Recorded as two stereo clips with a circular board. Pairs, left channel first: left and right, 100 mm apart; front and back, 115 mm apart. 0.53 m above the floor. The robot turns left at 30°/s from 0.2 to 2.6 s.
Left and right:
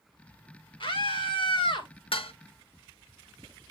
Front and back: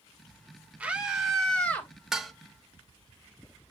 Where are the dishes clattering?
95° left, 0.9 m; by 2.3 s 90° left, 0.9 m.